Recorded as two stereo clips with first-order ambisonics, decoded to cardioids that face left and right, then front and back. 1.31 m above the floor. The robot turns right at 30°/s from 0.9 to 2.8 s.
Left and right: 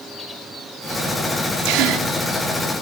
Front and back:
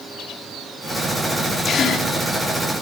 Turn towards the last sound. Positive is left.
turn(degrees=-35)